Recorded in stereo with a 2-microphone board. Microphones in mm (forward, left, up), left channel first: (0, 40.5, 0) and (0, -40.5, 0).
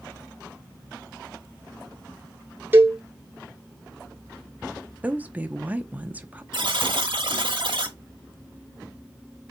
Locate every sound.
2.7 s a cowbell: 25° right (ahead or behind), 1.0 m
5.0 s a woman speaking: 20° right (ahead or behind), 0.7 m
6.5 s a buzzer: 80° right, 1.0 m